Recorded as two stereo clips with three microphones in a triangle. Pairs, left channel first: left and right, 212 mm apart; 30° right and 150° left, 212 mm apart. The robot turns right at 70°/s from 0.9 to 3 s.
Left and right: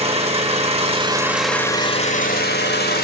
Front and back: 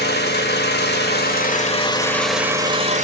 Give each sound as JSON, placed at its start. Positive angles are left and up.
{"t": 0.0, "sound": "an engine running", "azimuth_deg": -40, "distance_m": 1.7}